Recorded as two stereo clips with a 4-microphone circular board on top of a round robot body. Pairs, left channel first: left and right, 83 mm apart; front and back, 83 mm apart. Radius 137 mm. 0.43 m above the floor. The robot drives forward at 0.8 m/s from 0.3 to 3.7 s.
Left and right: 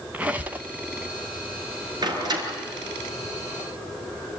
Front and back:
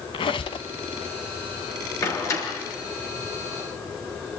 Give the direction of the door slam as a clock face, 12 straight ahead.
2 o'clock.